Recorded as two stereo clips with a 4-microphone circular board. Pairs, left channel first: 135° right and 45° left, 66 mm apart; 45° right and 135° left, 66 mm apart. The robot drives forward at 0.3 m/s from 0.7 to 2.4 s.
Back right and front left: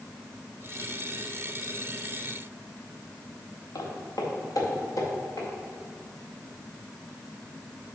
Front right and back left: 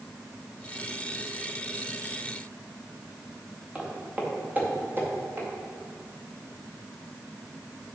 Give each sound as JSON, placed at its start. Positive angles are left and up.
{"t": 3.8, "sound": "footsteps", "azimuth_deg": -150, "distance_m": 2.5}